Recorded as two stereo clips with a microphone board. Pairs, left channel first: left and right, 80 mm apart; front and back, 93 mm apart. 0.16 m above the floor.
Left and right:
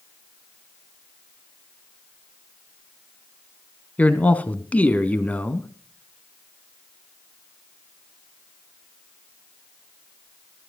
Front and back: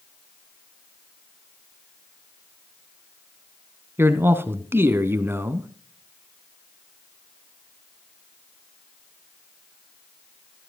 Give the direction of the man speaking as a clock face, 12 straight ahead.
7 o'clock.